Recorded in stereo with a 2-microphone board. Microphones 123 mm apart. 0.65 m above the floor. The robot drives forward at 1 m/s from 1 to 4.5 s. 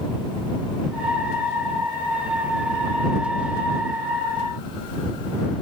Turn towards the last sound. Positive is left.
No sound to turn to.